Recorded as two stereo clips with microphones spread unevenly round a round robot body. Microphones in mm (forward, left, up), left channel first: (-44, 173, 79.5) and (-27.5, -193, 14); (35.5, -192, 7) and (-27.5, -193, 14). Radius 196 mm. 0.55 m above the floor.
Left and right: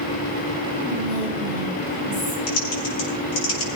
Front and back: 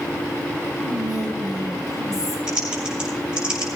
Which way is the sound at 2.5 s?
115° left.